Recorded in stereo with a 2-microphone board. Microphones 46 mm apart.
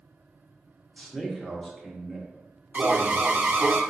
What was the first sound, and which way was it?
A man speaking, 10° left (ahead or behind).